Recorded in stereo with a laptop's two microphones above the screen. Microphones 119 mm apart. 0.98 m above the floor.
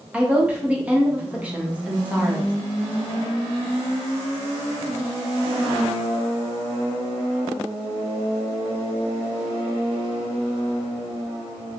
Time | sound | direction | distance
0.1 | a woman speaking | 10° right (ahead or behind) | 0.8 m